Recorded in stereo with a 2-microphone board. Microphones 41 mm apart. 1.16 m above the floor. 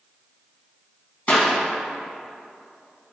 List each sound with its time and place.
1.3 s a clap: 40° left (ahead or behind), 1.5 m